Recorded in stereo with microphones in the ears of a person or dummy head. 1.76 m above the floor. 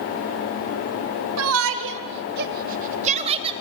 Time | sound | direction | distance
1.4 | a shout | 80° right | 2 m